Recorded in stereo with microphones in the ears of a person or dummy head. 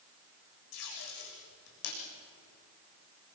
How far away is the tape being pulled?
About 7 m.